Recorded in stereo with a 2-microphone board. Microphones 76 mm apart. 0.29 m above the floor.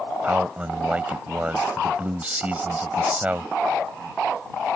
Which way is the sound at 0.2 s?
20° right (ahead or behind).